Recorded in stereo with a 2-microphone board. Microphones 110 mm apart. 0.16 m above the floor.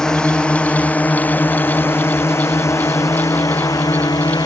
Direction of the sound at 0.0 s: 5° left (ahead or behind).